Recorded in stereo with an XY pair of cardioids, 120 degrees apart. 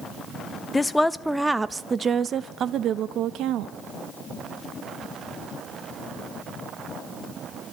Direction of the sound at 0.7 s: 20° left.